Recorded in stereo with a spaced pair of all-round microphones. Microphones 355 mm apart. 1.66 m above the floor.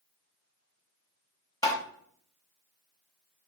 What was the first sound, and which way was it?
Tapping, 10° left (ahead or behind).